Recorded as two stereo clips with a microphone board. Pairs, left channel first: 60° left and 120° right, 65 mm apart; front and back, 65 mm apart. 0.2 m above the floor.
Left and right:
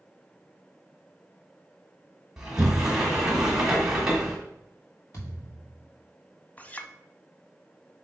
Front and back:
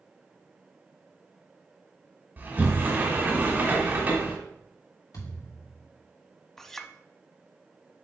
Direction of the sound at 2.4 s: 170° left.